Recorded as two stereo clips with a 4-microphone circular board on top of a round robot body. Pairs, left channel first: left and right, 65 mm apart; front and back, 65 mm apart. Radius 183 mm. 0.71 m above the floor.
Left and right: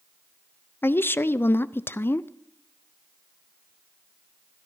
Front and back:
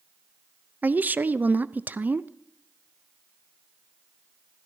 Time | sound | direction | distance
0.8 | a woman speaking | 130° left | 0.5 m